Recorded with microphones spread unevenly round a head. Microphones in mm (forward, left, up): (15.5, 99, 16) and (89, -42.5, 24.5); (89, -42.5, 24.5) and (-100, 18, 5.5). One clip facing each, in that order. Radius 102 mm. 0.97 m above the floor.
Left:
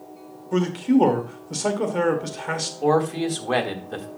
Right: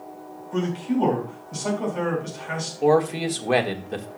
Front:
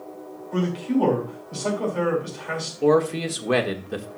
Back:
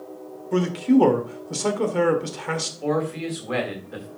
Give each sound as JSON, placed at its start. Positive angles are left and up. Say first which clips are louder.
{"t": 0.5, "sound": "a man speaking", "louder": "left 5 dB, back 5 dB", "azimuth_deg": 145, "distance_m": 2.0}
{"t": 2.8, "sound": "a man speaking", "louder": "right 1 dB, front 6 dB", "azimuth_deg": 10, "distance_m": 1.7}